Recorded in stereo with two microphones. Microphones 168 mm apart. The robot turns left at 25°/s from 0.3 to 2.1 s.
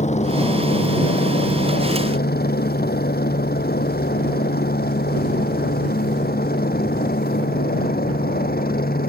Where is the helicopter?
45° left (ahead or behind); by 9.1 s 65° left (ahead or behind).